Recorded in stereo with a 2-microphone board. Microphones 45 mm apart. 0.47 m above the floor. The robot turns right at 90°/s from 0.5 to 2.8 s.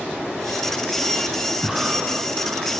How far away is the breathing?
About 2 m.